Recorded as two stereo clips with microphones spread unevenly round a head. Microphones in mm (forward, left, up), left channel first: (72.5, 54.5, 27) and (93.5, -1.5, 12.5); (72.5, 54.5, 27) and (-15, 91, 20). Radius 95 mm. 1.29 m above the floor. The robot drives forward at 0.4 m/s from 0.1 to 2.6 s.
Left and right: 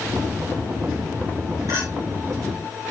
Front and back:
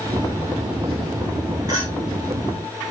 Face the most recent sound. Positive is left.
turn(degrees=-130)